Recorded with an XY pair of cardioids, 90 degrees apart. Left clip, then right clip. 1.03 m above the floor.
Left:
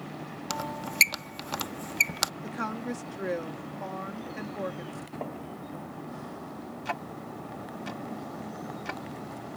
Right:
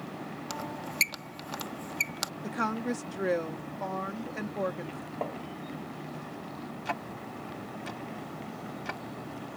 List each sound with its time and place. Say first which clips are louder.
0.5 s a squeak: left 5 dB; 45° left
2.4 s a woman speaking: right 2 dB; 30° right
5.2 s tapping: right 3 dB; 35° right
6.8 s ticking: left 1 dB; straight ahead